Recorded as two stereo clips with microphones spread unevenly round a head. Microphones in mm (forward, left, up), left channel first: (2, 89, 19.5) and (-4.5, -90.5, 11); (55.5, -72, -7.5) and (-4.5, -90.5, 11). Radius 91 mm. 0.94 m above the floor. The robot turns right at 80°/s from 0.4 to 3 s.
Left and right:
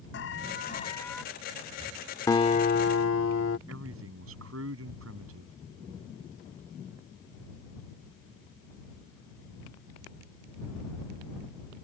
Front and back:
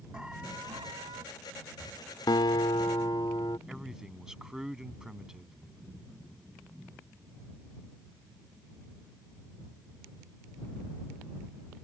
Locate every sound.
0.1 s an alarm: 110° left; by 1.2 s straight behind
2.3 s a guitar: 15° left; by 3.6 s 75° left
3.7 s a man speaking: 85° right